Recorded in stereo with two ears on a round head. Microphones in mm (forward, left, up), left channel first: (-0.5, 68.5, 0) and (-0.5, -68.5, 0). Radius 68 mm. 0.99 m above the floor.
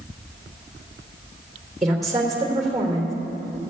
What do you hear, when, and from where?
1.8 s a woman speaking: centre (ahead or behind), 3 m